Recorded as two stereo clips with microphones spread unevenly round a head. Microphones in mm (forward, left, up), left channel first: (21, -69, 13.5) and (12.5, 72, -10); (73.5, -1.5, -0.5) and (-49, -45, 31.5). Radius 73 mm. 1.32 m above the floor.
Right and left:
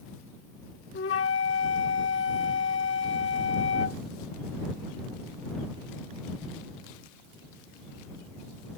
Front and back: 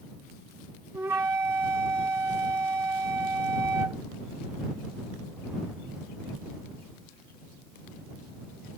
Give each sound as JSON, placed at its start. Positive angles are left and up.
{"t": 0.9, "sound": "a flute", "azimuth_deg": -90}